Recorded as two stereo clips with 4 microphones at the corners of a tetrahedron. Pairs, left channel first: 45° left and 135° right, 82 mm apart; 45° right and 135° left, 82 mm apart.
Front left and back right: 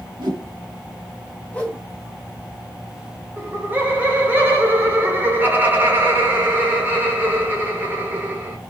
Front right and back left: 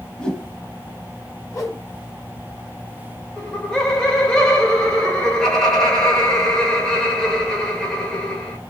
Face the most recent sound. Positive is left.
turn(degrees=-115)